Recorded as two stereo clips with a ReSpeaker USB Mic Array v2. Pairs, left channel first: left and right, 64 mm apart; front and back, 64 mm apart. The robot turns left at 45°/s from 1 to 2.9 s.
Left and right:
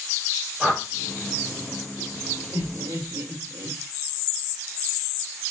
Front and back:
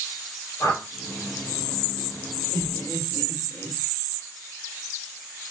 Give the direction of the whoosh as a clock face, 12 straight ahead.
12 o'clock.